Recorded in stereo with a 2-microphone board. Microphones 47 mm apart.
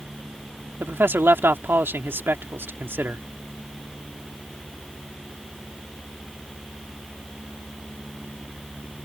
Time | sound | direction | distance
0.8 | a man speaking | 50° right (ahead or behind) | ?